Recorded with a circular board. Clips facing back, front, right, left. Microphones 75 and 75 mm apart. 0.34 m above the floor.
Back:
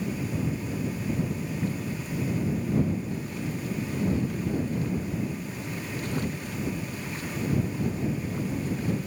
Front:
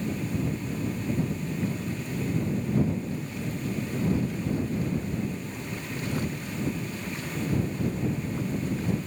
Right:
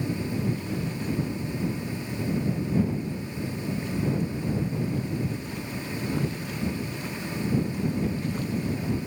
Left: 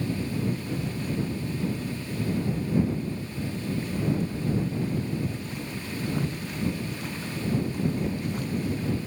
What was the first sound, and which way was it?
Only background noise.